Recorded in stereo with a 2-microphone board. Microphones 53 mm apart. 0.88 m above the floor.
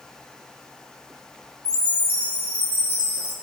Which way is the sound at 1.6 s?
35° right (ahead or behind).